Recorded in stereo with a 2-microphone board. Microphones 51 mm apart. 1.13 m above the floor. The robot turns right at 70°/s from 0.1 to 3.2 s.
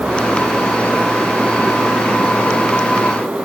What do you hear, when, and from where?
Only background noise.